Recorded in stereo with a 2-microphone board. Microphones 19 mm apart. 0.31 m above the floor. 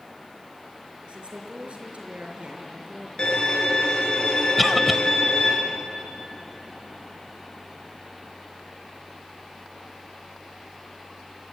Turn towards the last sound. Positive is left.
turn(degrees=0)  # may be behind; listen again after turning